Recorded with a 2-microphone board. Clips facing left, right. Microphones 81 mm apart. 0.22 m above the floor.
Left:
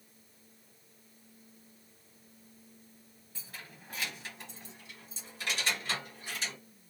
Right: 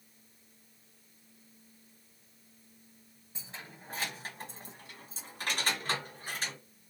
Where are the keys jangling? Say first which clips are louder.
Right 2 dB; 20° right (ahead or behind), 0.9 m; by 6.6 s 45° right (ahead or behind), 1.9 m.